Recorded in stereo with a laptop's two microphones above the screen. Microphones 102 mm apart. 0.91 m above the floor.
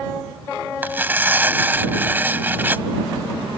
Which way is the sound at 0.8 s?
20° right (ahead or behind).